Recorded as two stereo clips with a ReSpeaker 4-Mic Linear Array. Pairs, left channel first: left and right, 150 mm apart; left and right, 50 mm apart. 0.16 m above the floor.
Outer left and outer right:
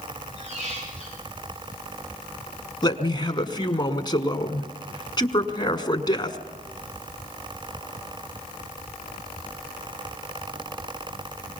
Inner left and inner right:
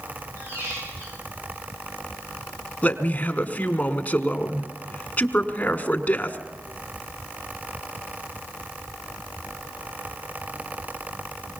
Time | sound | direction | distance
0.4 | a squeak | 50° right (ahead or behind) | 9.5 m
2.8 | a man speaking | 30° left (ahead or behind) | 1.3 m